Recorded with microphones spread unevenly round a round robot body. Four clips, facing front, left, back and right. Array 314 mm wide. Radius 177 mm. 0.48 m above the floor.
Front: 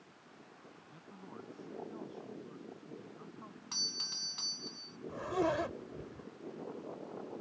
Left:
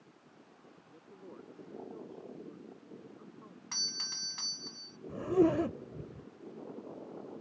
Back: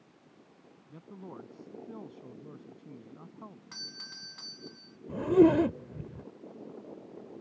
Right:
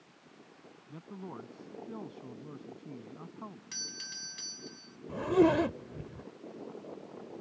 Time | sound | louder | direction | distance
0.9 | a man speaking | right 8 dB, back 7 dB | 110° right | ?
3.7 | a doorbell | even, front 1 dB | 55° left | ?
5.1 | a zipper | right 2 dB, back 12 dB | 175° left | ?